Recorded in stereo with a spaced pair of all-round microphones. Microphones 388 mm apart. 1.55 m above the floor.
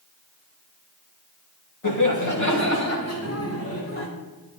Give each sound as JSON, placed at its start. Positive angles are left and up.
{"t": 1.8, "sound": "laughter", "side_deg": 55, "distance_m": 2.5}